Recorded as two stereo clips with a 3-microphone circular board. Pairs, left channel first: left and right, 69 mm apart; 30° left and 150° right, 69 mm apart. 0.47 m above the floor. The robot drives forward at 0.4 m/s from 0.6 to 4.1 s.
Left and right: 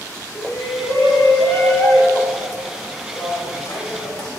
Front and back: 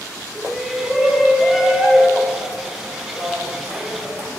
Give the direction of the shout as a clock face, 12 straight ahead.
8 o'clock.